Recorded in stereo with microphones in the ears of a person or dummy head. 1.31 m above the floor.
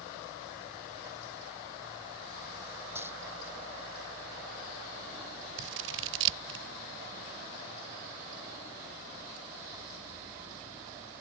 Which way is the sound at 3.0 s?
15° right (ahead or behind).